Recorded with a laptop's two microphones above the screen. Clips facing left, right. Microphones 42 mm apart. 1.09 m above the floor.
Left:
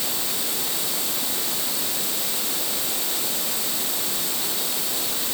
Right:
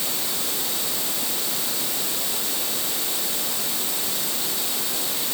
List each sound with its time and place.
Only background noise.